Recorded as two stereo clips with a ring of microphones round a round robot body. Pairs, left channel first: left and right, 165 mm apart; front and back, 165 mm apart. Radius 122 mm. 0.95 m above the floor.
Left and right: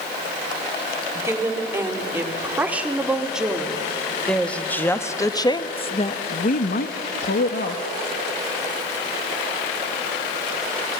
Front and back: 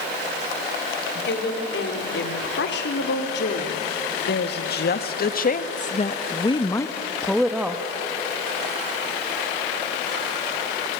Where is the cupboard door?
No cupboard door in this recording.